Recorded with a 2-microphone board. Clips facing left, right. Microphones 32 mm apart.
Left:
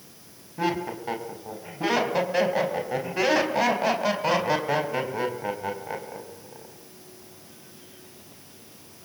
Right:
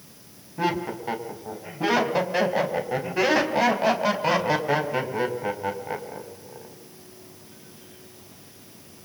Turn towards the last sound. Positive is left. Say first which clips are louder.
# right 1 dB
turn(degrees=-5)  # may be behind; listen again after turning